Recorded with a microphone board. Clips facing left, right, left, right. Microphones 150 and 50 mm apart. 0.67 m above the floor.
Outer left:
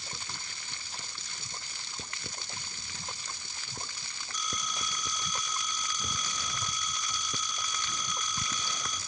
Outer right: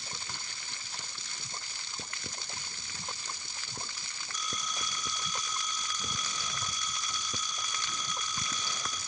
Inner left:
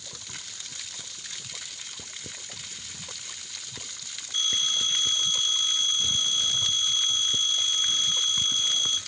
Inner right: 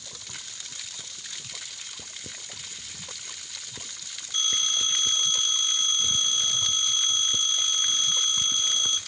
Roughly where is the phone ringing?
Right.